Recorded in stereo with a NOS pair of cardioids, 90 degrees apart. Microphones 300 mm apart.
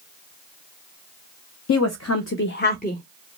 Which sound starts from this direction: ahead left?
A woman speaking, at 1.7 s.